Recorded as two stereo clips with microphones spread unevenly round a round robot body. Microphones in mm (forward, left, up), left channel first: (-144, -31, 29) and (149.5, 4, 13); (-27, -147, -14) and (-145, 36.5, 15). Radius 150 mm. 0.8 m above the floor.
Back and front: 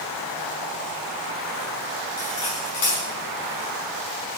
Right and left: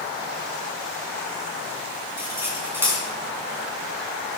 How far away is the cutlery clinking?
About 5.5 m.